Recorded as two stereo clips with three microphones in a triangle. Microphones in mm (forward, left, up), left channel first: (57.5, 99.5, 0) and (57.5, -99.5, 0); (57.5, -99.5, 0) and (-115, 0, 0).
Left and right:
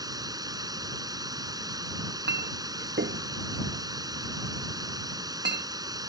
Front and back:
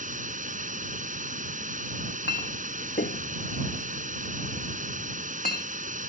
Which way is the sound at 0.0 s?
160° right.